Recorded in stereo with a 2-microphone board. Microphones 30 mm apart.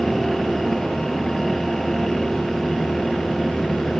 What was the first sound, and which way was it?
Only background noise.